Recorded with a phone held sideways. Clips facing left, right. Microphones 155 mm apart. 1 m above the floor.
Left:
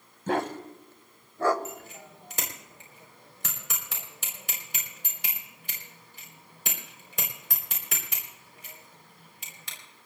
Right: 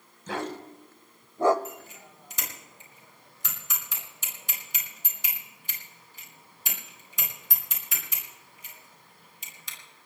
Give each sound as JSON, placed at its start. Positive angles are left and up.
{"t": 0.3, "sound": "a dog barking", "side_deg": 55, "distance_m": 1.5}
{"t": 1.6, "sound": "a bicycle bell", "side_deg": 65, "distance_m": 3.5}